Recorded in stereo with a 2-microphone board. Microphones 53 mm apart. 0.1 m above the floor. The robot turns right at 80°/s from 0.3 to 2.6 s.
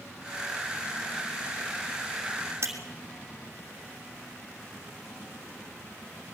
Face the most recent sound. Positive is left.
turn(degrees=-60)  # may be behind; listen again after turning